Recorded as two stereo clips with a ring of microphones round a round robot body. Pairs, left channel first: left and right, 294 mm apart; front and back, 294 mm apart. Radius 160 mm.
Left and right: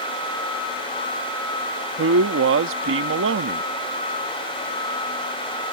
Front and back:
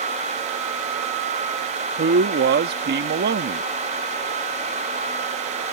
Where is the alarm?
I don't hear an alarm.